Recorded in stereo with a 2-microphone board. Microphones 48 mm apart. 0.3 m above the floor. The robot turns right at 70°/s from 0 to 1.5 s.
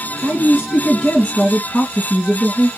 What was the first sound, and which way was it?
A woman speaking, 50° right.